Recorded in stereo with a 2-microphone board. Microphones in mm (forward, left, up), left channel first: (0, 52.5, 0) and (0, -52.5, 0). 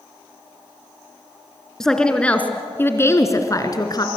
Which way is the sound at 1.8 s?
5° left (ahead or behind).